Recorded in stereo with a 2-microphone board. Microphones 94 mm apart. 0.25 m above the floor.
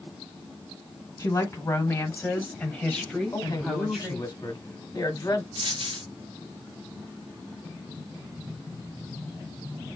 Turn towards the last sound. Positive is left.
turn(degrees=-65)  # may be behind; listen again after turning